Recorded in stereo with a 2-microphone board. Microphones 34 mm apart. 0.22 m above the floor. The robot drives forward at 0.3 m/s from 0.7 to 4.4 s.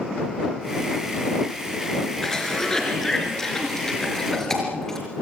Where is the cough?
15° left (ahead or behind), 3.5 m; by 5.0 s 10° left (ahead or behind), 4 m.